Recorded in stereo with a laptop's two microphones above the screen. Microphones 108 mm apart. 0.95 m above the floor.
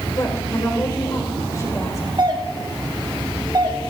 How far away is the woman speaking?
About 3.5 m.